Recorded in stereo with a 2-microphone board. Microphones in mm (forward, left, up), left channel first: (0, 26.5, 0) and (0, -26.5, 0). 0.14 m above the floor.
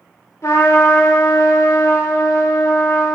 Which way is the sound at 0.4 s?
60° left (ahead or behind).